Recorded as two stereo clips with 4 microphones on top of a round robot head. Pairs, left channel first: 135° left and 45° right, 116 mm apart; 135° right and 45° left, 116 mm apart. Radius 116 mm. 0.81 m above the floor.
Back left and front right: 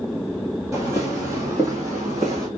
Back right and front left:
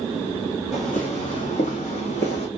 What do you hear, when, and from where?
0.7 s footsteps: 110° right, 1.2 m; by 2.5 s 105° right, 2 m